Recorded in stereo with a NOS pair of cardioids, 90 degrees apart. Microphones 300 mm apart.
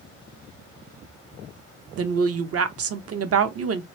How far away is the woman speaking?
About 0.8 m.